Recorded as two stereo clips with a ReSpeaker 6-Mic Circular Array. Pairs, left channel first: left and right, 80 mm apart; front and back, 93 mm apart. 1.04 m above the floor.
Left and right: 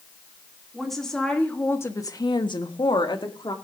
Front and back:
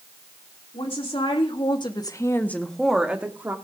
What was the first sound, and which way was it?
A woman speaking, straight ahead.